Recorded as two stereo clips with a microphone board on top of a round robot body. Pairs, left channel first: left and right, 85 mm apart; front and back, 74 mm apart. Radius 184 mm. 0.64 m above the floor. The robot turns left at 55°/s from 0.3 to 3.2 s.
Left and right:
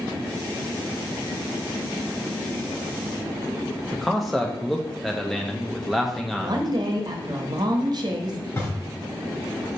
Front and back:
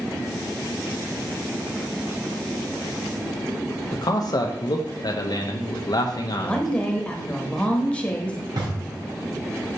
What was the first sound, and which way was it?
A man speaking, straight ahead.